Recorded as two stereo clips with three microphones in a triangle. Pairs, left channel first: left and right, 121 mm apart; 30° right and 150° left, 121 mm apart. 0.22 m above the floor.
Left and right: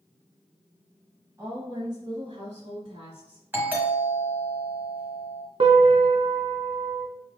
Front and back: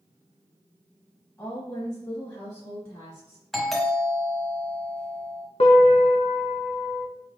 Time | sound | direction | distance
1.4 | a woman speaking | 60° right | 1.1 m
3.5 | a doorbell | 115° right | 1.4 m
5.6 | a piano | 55° right | 0.6 m